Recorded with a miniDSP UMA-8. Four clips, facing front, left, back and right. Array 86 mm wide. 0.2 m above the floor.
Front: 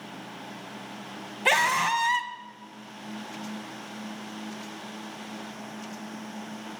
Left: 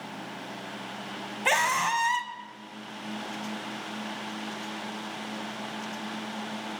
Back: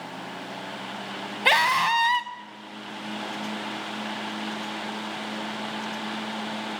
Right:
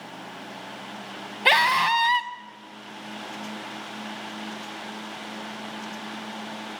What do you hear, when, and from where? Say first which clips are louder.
1.4 s a scream: right 5 dB, back 2 dB; 120° right, 1.1 m